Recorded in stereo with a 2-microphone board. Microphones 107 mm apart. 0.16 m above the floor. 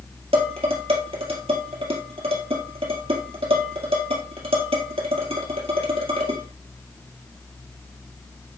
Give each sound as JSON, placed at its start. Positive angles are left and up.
{"t": 0.3, "sound": "dishes clattering", "side_deg": -70, "distance_m": 2.5}